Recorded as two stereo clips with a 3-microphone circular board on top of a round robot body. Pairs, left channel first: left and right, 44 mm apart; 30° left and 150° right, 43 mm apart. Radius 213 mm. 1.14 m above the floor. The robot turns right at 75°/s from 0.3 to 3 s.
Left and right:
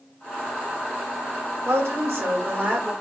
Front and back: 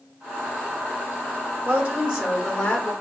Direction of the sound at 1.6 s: 110° right.